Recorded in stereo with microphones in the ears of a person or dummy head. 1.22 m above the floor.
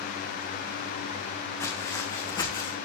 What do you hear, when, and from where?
1.6 s footsteps: 10° left (ahead or behind), 3.5 m; by 2.8 s 20° left (ahead or behind), 3 m